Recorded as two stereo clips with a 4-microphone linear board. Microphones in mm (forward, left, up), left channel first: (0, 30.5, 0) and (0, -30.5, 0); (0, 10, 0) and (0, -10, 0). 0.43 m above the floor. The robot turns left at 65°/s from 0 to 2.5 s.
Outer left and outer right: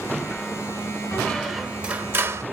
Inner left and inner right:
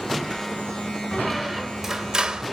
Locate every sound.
1.1 s a squeak: 25° left, 0.6 m; by 2.4 s 60° right, 0.6 m